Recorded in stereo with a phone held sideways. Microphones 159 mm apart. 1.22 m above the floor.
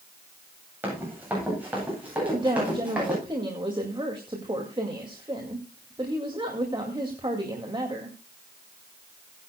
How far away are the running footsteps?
About 9.5 m.